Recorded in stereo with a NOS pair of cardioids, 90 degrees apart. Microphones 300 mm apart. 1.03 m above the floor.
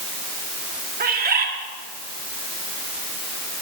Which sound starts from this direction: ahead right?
A bird, at 1.0 s.